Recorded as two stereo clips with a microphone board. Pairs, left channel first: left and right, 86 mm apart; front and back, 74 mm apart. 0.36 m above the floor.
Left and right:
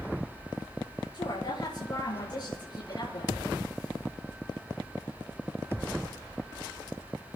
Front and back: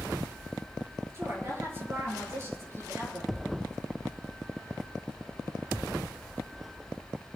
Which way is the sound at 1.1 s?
125° left.